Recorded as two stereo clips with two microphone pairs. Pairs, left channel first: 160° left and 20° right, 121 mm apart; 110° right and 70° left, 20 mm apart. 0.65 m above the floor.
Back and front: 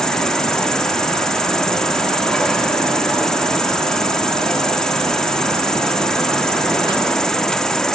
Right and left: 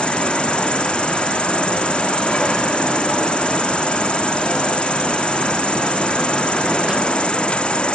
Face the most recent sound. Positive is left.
turn(degrees=-115)